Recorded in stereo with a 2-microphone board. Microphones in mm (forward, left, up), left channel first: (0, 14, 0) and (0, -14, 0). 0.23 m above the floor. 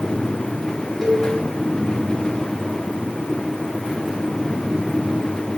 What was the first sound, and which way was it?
A cowbell, 5° right (ahead or behind).